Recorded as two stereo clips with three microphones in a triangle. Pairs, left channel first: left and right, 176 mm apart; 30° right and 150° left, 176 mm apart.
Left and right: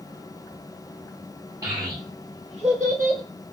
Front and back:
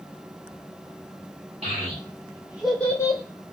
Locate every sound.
1.6 s a child speaking: 160° right, 1.6 m; by 3.2 s 80° right, 0.9 m